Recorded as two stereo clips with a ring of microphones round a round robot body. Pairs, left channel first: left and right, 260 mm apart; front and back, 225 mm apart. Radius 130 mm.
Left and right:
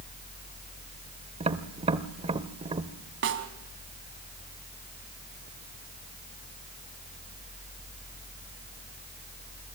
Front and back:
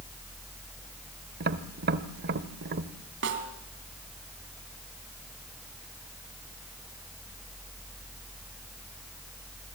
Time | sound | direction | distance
1.4 | tapping | 150° right | 1.1 m
3.2 | a snare drum | 135° right | 2.5 m